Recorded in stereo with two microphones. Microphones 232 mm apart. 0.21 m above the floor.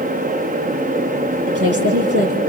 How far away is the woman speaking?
About 5.5 m.